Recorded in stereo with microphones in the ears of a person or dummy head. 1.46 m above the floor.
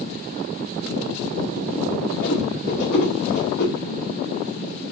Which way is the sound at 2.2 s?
60° left (ahead or behind).